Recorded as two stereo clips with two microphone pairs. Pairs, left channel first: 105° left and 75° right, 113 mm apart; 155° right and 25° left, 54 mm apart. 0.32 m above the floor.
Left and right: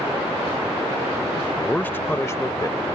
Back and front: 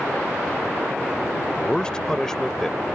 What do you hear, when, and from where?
1.6 s a man speaking: 170° left; by 2.8 s 120° left